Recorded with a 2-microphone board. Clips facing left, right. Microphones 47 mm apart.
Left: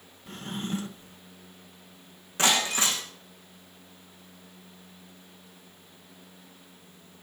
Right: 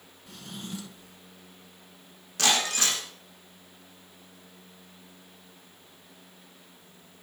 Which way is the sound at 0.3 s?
40° left (ahead or behind).